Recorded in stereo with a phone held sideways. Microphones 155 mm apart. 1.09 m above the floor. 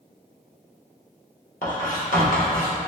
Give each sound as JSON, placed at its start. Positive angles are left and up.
{"t": 1.6, "sound": "writing", "side_deg": 55, "distance_m": 1.0}